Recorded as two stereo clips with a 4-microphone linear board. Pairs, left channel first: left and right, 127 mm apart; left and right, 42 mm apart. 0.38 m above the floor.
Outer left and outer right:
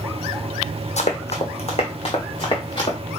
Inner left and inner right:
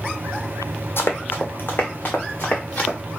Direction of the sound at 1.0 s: 65° left (ahead or behind).